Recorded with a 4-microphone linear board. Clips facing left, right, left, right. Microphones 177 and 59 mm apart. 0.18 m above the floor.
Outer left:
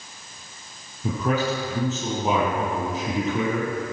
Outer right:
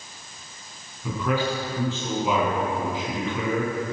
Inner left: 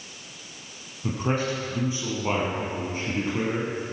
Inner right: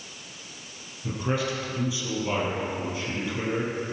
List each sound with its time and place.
1.0 s a man speaking: 45° left (ahead or behind), 5 m